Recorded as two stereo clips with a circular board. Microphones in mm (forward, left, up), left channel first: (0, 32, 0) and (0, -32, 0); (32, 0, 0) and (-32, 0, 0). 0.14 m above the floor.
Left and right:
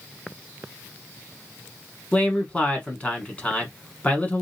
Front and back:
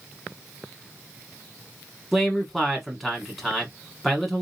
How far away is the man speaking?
About 1.1 m.